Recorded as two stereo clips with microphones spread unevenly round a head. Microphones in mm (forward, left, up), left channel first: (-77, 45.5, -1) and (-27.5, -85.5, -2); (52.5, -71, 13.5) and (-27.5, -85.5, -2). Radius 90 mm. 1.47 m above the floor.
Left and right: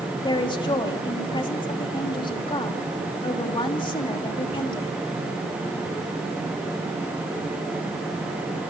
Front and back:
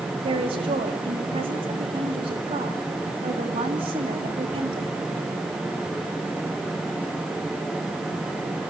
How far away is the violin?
I don't hear a violin.